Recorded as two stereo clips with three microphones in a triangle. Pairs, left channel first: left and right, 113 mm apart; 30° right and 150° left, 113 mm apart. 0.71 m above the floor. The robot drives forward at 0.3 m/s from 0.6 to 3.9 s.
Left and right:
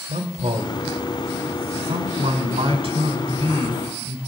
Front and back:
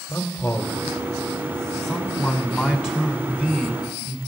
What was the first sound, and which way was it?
A man speaking, 105° right.